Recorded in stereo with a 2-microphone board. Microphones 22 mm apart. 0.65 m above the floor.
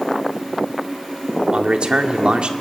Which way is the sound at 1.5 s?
45° right (ahead or behind).